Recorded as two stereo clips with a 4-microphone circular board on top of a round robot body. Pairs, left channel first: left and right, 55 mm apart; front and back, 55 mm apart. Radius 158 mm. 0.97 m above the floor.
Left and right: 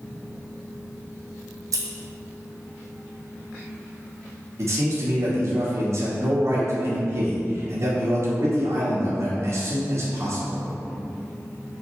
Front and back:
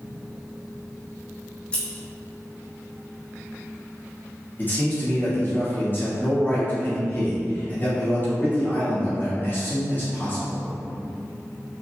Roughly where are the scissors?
Right.